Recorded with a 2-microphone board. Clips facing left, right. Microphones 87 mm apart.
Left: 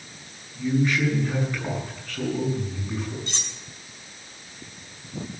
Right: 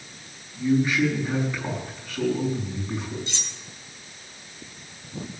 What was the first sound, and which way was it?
A man speaking, 5° right (ahead or behind).